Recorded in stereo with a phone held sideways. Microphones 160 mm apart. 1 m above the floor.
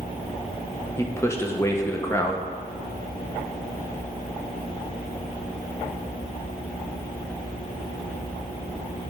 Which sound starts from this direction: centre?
A man speaking, at 1.0 s.